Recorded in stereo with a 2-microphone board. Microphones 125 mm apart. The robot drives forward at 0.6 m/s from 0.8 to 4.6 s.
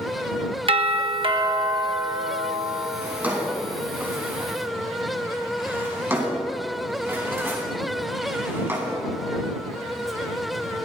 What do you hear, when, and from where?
0.7 s a doorbell: 45° right (ahead or behind), 1.1 m; by 2.9 s 30° right (ahead or behind), 1.7 m
3.0 s a drawer: 15° right (ahead or behind), 4 m; by 9.0 s 20° right (ahead or behind), 3 m